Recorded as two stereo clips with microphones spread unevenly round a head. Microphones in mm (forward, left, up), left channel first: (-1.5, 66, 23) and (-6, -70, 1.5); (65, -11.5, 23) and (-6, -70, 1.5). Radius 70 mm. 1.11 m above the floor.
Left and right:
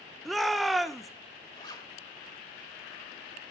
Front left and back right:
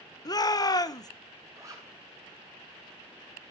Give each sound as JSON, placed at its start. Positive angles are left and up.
{"t": 0.2, "sound": "a shout", "azimuth_deg": -5, "distance_m": 1.0}
{"t": 1.6, "sound": "a zipper", "azimuth_deg": 145, "distance_m": 1.8}